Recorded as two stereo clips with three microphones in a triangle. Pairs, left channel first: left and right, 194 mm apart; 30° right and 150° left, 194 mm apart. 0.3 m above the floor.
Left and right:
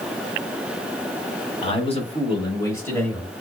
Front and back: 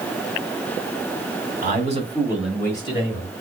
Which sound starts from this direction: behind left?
A man speaking, at 1.6 s.